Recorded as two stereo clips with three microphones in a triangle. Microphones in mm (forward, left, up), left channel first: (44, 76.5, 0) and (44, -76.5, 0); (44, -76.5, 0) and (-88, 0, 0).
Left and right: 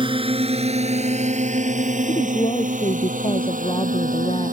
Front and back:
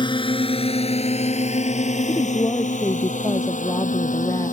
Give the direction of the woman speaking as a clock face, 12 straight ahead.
11 o'clock.